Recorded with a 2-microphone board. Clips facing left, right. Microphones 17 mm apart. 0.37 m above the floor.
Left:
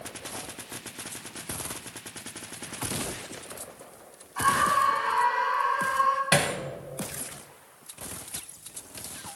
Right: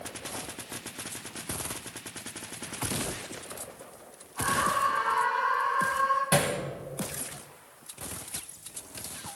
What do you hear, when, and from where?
4.4 s a scream: 80° left, 6.5 m
6.3 s hammering: 35° left (ahead or behind), 1.5 m